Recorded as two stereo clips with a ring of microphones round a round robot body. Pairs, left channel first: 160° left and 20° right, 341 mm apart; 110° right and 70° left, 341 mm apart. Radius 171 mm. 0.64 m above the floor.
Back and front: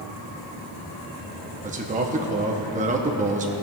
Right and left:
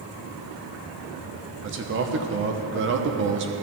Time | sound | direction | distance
1.6 | a man speaking | 35° left | 0.7 m